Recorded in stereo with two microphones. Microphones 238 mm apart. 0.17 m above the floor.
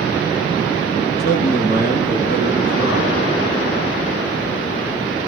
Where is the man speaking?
40° right (ahead or behind), 6 m.